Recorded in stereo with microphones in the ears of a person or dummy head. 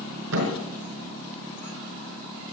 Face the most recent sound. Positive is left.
turn(degrees=-80)